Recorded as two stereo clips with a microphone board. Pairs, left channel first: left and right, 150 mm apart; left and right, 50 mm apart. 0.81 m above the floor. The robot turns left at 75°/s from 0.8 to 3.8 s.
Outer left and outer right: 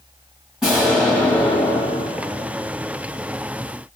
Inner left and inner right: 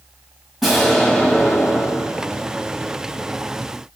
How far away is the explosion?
About 1.3 m.